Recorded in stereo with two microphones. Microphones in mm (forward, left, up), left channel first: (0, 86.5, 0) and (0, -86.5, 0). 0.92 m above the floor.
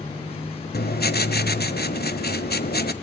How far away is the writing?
About 1.3 m.